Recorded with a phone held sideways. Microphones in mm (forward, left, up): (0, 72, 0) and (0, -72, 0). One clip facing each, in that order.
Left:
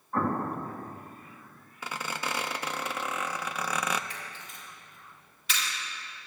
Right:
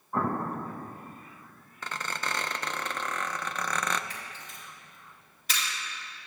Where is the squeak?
10° left (ahead or behind), 0.6 m.